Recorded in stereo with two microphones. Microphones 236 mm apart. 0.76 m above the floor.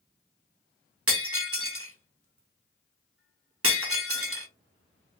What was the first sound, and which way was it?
Breaking glass, 70° right (ahead or behind).